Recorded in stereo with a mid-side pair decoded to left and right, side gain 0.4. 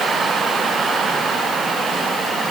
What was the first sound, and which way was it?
Only background noise.